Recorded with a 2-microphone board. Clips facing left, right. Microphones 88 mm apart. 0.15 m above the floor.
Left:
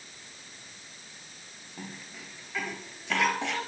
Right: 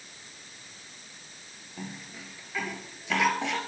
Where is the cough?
Centre (ahead or behind), 3.5 m.